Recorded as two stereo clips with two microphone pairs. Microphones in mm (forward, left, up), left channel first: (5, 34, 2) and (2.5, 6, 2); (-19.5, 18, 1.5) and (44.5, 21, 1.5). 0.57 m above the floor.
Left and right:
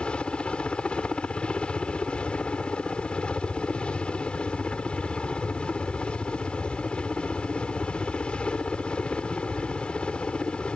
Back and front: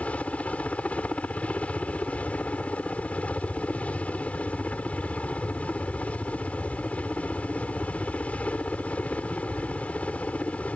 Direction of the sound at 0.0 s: 120° left.